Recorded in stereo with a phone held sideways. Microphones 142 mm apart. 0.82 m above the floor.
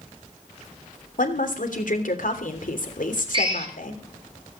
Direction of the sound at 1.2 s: 70° left (ahead or behind).